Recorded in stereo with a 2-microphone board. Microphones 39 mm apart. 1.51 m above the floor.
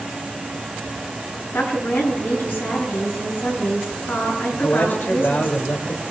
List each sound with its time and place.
1.5 s a woman speaking: 75° left (ahead or behind), 8.5 m
4.5 s a man speaking: 65° left (ahead or behind), 2.5 m